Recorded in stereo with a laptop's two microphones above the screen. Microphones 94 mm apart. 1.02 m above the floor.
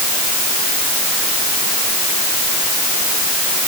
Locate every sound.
Only background noise.